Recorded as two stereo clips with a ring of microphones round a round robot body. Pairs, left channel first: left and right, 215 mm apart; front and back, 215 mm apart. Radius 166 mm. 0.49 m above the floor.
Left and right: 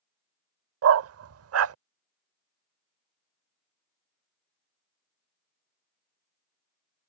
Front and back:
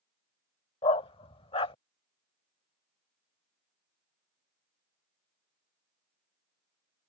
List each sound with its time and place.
0.8 s a dog barking: 75° right